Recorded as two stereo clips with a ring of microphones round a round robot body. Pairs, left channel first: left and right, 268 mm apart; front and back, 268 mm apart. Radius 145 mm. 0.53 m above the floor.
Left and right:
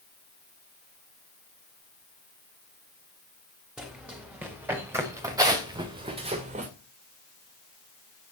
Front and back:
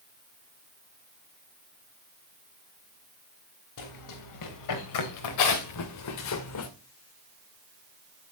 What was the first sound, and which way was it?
Running footsteps, 5° right.